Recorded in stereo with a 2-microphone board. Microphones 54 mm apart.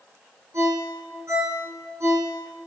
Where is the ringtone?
55° right (ahead or behind), 5 m.